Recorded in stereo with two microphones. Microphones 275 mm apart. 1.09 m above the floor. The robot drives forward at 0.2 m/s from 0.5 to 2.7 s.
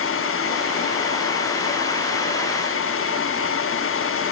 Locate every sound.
Only background noise.